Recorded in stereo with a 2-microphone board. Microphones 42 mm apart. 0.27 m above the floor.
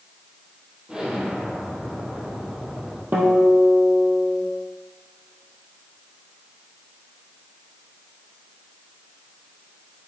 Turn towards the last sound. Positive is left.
turn(degrees=-55)  # may be behind; listen again after turning